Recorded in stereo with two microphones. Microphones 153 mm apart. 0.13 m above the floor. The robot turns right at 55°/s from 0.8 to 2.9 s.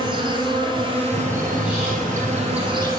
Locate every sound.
0.0 s an insect: 145° right, 1.3 m; by 3.0 s 30° right, 1.3 m
1.1 s a bird: 10° left, 3 m; by 2.9 s 105° left, 3 m